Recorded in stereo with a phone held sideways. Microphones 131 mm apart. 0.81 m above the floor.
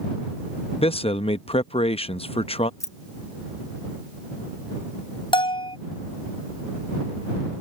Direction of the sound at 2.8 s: 20° left (ahead or behind).